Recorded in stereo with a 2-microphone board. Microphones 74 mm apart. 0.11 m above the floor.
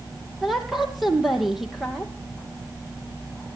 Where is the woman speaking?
5° right (ahead or behind), 3.5 m.